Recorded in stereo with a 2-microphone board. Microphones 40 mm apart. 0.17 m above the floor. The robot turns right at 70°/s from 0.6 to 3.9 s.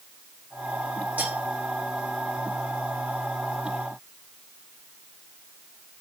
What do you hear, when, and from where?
1.2 s cutlery clinking: 45° right (ahead or behind), 4.5 m; by 1.4 s 60° right (ahead or behind), 4.5 m